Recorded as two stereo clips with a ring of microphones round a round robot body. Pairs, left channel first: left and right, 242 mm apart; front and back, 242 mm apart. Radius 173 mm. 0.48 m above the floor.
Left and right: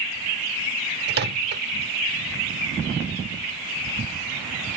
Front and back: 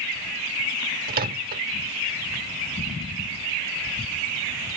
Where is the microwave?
130° right.